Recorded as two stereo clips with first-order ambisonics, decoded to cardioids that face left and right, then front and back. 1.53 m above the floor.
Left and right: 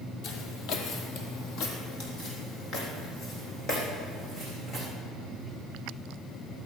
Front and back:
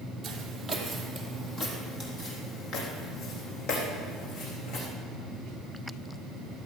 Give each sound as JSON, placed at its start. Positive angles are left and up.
{"t": 0.2, "sound": "footsteps", "azimuth_deg": 105, "distance_m": 2.5}